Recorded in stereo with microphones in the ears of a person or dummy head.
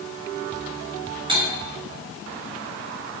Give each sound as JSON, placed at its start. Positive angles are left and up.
{"t": 1.3, "sound": "cutlery clinking", "side_deg": -35, "distance_m": 1.1}